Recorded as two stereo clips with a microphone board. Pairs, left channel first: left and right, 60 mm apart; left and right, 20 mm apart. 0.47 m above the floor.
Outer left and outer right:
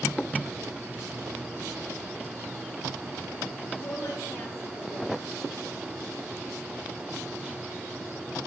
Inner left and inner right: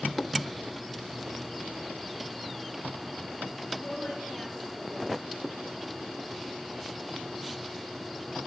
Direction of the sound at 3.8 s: 55° left (ahead or behind).